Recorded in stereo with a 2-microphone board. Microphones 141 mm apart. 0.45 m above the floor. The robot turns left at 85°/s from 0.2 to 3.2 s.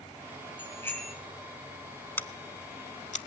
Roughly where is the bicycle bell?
Left.